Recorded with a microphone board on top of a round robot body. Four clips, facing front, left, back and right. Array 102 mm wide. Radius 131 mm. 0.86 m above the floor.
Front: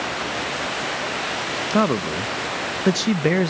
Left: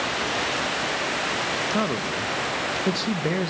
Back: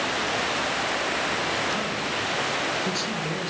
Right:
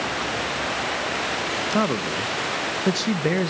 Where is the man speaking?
15° right, 0.6 m.